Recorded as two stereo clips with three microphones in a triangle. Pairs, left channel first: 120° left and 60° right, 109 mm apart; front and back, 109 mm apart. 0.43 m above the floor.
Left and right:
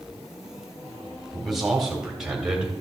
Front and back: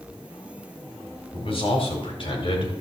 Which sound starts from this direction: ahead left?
A man speaking, at 1.3 s.